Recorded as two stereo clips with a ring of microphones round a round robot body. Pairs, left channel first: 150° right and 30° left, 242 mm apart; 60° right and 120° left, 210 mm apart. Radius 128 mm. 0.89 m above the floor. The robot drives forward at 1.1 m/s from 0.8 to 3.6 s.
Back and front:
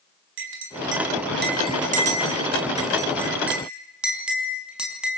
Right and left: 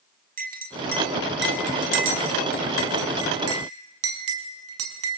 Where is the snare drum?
No snare drum in this recording.